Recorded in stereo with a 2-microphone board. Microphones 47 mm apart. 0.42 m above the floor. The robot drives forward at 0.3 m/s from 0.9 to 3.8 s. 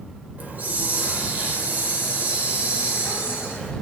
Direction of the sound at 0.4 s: 35° right (ahead or behind).